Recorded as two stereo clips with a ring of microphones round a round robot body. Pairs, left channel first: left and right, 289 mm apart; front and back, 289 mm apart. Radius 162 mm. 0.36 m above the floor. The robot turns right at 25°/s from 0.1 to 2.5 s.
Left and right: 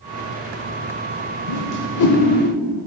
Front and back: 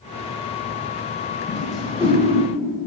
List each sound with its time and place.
1.5 s a whoosh: 85° left, 0.7 m; by 2.2 s 105° left, 0.7 m